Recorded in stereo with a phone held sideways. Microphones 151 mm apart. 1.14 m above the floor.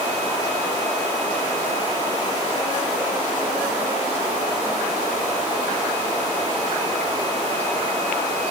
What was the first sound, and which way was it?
Only background noise.